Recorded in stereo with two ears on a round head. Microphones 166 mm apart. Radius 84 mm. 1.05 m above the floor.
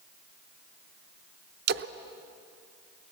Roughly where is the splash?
Right.